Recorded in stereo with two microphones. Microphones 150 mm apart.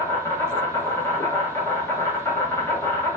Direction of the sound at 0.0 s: 20° left (ahead or behind).